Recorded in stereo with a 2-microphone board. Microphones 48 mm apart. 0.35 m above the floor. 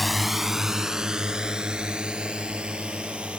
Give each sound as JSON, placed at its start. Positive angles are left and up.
{"t": 0.0, "sound": "a drone", "side_deg": 0}